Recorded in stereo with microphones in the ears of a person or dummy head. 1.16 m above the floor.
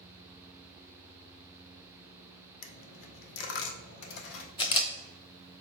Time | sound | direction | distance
2.6 | a dropped coin | 65° left (ahead or behind) | 1.2 m
4.6 | a camera shutter | 25° left (ahead or behind) | 1.1 m